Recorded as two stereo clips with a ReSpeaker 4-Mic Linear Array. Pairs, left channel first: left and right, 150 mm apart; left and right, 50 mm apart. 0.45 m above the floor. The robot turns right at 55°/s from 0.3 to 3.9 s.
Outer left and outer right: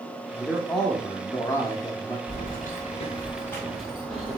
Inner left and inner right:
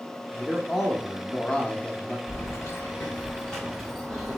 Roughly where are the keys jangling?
Left.